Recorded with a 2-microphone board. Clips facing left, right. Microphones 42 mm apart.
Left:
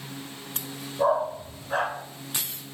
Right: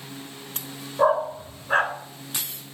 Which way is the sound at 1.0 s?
45° right (ahead or behind).